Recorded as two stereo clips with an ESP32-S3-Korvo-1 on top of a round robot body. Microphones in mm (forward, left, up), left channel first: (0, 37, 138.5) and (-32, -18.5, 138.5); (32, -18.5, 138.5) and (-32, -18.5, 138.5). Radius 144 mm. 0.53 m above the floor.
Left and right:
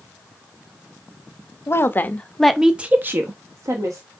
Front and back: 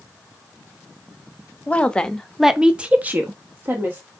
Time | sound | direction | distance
1.7 | a woman speaking | 60° left | 1.4 m